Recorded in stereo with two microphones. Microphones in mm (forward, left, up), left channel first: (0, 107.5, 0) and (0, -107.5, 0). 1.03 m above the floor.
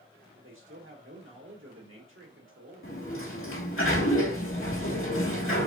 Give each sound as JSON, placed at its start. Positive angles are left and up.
{"t": 0.4, "sound": "a man speaking", "side_deg": -75, "distance_m": 1.8}
{"t": 2.8, "sound": "a sliding door", "side_deg": 80, "distance_m": 1.7}